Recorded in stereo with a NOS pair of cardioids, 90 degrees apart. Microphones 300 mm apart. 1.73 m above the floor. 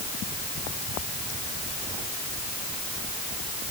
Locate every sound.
Only background noise.